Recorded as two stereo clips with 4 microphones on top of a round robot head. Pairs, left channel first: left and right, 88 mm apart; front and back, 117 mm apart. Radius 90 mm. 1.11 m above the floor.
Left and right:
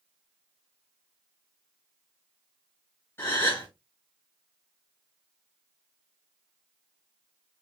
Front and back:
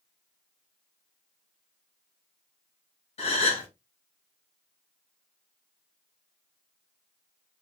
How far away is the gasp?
About 3 m.